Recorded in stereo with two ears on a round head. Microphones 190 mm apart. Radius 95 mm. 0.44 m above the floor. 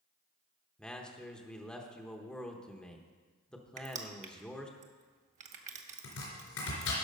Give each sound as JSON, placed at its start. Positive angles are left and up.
{"t": 0.8, "sound": "a man speaking", "side_deg": 5, "distance_m": 0.9}
{"t": 3.8, "sound": "crushing", "side_deg": -35, "distance_m": 1.0}
{"t": 6.0, "sound": "chopping", "side_deg": 80, "distance_m": 4.0}